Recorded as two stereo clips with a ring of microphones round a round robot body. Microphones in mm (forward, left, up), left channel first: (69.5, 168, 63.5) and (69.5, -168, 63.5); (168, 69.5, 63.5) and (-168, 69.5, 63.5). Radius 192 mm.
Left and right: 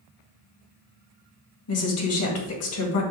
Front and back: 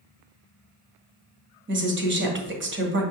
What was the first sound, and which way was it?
A woman speaking, 130° left.